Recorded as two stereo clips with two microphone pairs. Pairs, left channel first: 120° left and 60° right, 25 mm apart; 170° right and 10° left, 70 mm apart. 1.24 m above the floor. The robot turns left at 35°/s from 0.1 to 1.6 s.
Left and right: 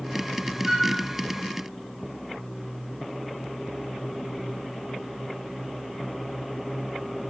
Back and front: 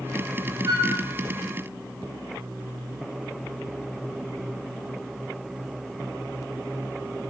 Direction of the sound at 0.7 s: 15° left.